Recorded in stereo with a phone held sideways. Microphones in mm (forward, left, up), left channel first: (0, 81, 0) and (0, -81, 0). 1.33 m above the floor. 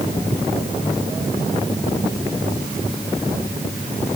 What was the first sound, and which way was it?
Only background noise.